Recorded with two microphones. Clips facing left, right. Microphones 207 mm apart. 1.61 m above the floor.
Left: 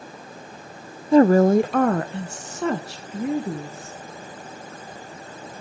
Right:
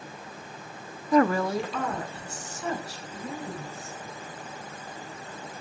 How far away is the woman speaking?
About 0.5 m.